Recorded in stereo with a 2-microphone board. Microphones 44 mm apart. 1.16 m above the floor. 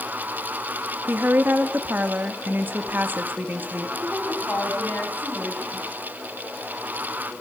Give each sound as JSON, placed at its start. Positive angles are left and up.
{"t": 1.1, "sound": "a woman speaking", "side_deg": -50, "distance_m": 1.6}
{"t": 4.0, "sound": "a woman speaking", "side_deg": 35, "distance_m": 7.0}